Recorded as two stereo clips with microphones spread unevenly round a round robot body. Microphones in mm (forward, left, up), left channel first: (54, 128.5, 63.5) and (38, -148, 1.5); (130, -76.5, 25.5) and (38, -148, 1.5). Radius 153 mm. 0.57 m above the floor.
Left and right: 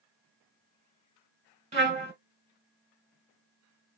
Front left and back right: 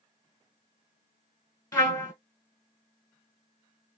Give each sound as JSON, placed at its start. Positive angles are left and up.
{"t": 1.7, "sound": "a trumpet", "azimuth_deg": -25, "distance_m": 1.6}